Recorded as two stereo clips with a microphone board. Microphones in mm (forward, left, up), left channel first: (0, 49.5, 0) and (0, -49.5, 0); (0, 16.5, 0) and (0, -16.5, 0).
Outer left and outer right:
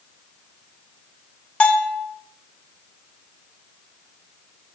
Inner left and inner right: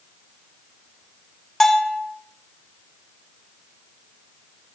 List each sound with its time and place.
1.6 s a bell: 10° left (ahead or behind), 1.1 m